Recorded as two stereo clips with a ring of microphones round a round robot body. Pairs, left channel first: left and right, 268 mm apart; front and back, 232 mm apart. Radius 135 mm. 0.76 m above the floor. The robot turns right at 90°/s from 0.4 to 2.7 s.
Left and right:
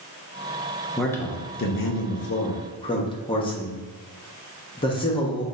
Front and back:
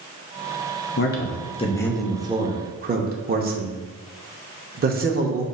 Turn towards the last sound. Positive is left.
turn(degrees=155)